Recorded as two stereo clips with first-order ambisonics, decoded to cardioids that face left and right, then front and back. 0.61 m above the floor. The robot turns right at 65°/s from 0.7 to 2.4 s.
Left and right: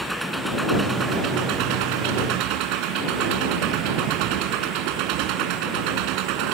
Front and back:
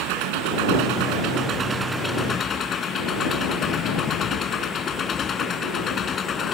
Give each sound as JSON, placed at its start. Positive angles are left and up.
{"t": 0.0, "sound": "an engine running", "azimuth_deg": -175}
{"t": 3.6, "sound": "a sliding door", "azimuth_deg": -50}